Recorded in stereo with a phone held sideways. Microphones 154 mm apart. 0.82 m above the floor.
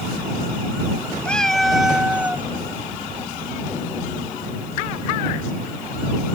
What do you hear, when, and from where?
1.2 s a cat meowing: 10° left (ahead or behind); by 2.5 s 10° right (ahead or behind)